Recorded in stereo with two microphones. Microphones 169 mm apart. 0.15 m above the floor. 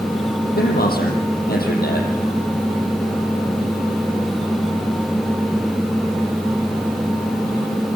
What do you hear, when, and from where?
0.6 s a man speaking: 75° left (ahead or behind), 6 m